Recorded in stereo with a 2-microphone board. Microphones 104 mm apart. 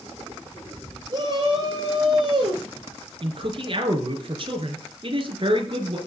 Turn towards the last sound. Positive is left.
turn(degrees=-50)  # may be behind; listen again after turning